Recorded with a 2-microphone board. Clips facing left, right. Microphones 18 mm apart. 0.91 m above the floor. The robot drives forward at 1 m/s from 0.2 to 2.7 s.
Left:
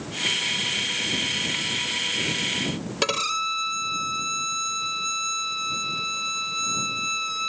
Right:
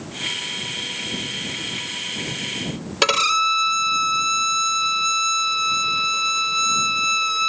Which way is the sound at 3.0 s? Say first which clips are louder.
Right 7 dB; 35° right (ahead or behind).